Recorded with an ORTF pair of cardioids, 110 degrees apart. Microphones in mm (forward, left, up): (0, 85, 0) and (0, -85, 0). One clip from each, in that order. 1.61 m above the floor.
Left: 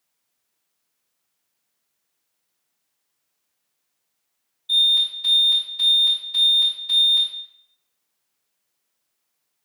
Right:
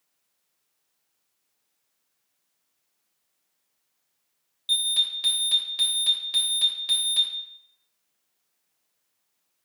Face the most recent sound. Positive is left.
turn(degrees=-70)